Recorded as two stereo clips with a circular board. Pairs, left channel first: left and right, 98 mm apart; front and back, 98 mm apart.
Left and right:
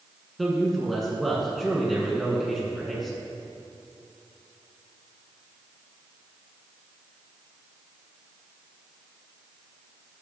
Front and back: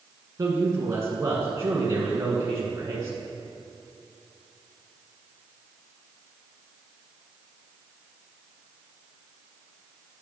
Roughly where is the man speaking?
Behind.